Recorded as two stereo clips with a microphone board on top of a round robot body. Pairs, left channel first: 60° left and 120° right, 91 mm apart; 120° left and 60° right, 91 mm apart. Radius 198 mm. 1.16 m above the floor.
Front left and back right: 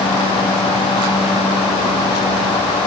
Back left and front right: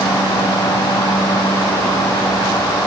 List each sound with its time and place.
Only background noise.